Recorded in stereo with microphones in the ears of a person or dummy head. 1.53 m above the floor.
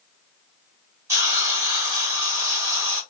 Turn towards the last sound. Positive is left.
turn(degrees=-20)  # may be behind; listen again after turning